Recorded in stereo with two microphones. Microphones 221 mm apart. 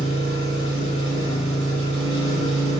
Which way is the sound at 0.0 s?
75° right (ahead or behind).